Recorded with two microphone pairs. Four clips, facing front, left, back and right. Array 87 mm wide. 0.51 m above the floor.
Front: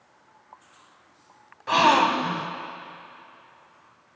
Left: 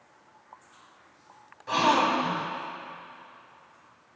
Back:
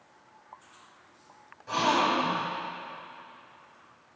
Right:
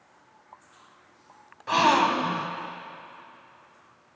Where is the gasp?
25° right, 0.5 m.